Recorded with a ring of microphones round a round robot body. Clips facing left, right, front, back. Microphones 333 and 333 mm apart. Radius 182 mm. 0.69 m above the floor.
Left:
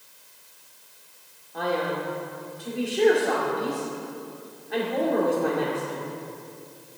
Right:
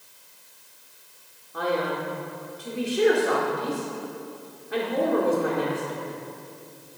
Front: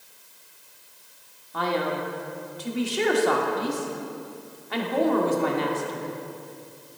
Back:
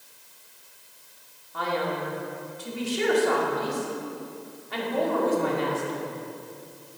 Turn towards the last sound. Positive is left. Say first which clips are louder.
# even, front 2 dB
turn(degrees=-5)